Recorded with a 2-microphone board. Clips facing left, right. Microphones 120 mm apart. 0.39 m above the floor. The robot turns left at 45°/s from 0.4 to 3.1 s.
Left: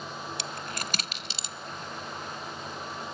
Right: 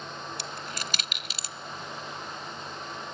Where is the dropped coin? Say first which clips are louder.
Left 1 dB; 65° left (ahead or behind), 0.5 m; by 1.5 s 20° left (ahead or behind), 0.5 m.